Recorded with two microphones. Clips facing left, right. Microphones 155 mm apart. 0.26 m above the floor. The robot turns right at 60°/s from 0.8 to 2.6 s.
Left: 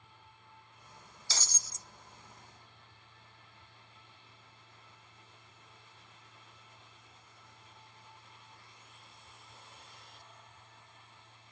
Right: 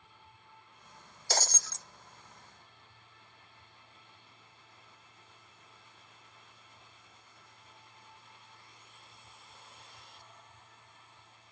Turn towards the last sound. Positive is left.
turn(degrees=-50)